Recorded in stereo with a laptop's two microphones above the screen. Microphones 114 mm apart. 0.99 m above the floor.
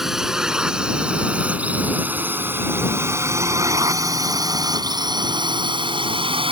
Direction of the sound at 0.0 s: 5° right (ahead or behind).